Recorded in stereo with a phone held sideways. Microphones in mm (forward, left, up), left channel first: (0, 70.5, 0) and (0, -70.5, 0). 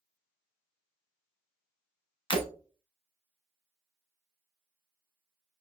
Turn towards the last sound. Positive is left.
turn(degrees=35)  # may be behind; listen again after turning